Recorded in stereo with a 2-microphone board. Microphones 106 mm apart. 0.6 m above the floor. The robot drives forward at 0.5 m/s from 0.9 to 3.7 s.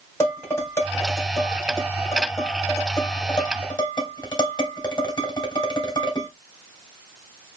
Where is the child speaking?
I don't hear a child speaking.